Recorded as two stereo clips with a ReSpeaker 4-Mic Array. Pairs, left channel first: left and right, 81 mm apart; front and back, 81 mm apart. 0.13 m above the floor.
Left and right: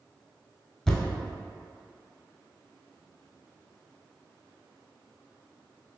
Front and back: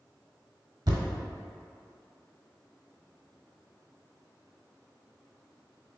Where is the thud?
170° left, 0.7 m.